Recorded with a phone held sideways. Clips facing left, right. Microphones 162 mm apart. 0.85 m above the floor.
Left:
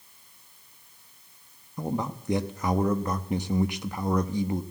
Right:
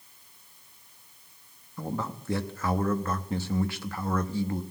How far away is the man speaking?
About 0.8 m.